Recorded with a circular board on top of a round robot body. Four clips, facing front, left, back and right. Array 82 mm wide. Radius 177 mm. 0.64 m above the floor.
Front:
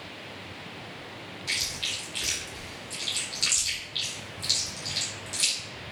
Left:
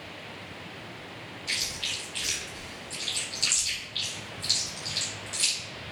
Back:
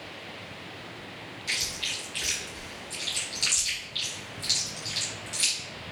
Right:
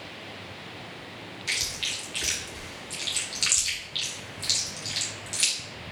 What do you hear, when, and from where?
1.5 s chewing: 80° right, 0.7 m